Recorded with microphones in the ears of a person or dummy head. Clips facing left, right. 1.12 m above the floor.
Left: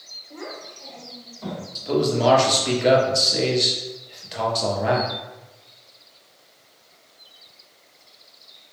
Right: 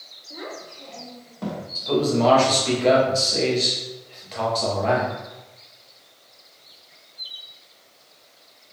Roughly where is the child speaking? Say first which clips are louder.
Even; centre.